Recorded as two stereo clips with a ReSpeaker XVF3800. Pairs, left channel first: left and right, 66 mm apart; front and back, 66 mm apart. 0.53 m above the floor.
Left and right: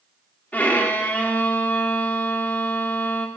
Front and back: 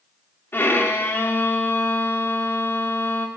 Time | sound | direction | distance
0.5 | a violin | 35° left | 0.7 m